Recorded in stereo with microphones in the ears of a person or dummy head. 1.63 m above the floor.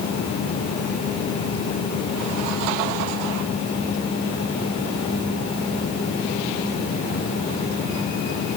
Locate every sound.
Only background noise.